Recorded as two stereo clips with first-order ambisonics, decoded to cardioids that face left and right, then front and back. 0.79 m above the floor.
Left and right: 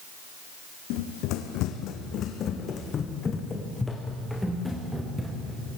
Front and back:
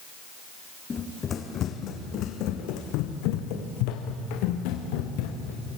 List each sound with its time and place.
0.9 s running footsteps: 70° left, 2.5 m; by 5.6 s 5° right, 4 m